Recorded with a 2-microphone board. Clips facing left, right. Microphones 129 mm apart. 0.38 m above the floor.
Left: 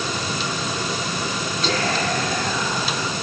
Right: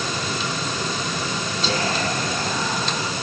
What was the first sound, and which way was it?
Whispering, 25° right (ahead or behind).